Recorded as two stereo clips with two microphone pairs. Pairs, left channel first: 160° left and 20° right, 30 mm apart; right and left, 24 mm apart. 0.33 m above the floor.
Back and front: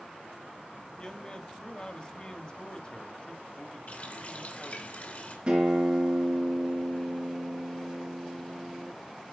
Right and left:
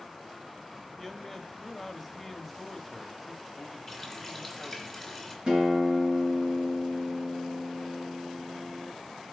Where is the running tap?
175° right, 2.5 m.